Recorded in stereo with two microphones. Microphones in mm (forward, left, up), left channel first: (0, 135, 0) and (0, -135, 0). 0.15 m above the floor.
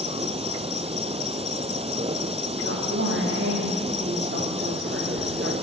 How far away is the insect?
About 0.8 m.